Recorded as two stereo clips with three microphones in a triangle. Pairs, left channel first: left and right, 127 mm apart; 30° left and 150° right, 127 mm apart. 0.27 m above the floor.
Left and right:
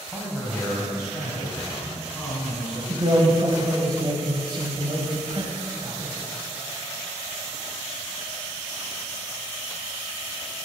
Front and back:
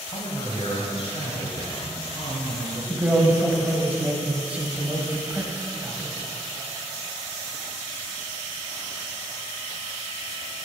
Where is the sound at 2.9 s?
80° right, 1.3 m.